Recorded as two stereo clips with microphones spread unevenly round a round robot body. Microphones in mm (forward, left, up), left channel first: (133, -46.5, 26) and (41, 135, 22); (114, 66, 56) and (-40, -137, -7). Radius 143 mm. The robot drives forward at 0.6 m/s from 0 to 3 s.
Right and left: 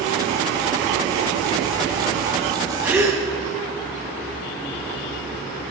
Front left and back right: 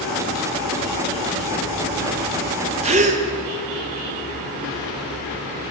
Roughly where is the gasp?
Behind.